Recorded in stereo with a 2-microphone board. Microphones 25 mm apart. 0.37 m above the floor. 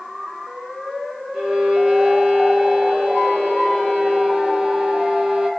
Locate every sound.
1.3 s a violin: 50° right (ahead or behind), 1.0 m